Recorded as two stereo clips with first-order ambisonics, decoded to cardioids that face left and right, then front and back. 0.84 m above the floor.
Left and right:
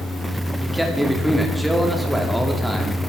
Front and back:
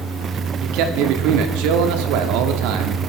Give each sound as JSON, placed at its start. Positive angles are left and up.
{"t": 0.6, "sound": "a man speaking", "azimuth_deg": 180, "distance_m": 1.8}